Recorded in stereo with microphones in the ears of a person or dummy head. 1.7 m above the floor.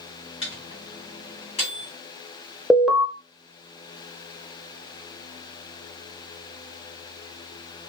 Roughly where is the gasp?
I don't hear a gasp.